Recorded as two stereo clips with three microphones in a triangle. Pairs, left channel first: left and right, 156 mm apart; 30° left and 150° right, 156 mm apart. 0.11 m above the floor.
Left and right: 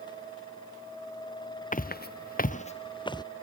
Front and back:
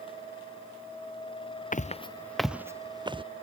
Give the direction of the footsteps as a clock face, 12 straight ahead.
10 o'clock.